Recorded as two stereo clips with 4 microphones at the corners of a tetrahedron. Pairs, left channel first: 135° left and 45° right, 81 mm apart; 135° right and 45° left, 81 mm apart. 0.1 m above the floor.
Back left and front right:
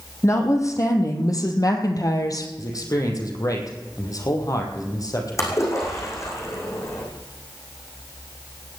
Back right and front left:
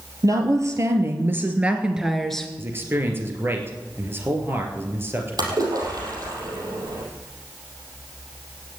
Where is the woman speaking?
85° left, 3.5 m; by 2.5 s 150° left, 2 m.